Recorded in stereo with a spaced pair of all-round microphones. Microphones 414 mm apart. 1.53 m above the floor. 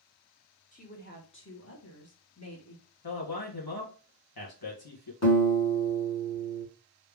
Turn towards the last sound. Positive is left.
turn(degrees=40)  # may be behind; listen again after turning